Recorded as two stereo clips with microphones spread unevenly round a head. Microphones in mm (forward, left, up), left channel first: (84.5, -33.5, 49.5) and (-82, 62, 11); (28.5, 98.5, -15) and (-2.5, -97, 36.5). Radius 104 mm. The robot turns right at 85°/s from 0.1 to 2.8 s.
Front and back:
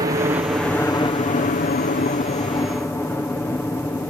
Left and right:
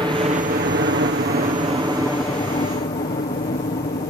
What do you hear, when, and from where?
0.0 s a helicopter: 175° right; by 4.1 s 55° left